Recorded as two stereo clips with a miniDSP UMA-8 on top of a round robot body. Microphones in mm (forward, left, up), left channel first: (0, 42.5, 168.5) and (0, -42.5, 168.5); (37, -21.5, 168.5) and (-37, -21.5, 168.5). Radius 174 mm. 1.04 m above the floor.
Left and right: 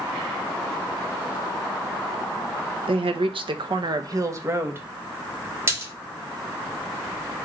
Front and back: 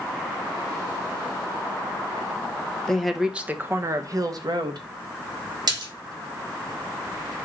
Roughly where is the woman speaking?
Right.